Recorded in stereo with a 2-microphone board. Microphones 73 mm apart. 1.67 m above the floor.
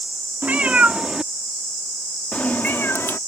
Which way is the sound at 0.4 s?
20° right (ahead or behind).